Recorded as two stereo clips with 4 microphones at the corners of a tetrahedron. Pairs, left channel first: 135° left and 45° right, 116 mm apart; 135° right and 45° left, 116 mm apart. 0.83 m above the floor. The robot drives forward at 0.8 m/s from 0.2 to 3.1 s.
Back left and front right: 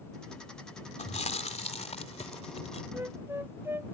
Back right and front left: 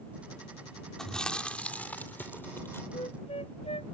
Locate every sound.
1.0 s chewing: 140° left; by 2.8 s 155° left
2.9 s a flute: 110° right; by 4.0 s 115° right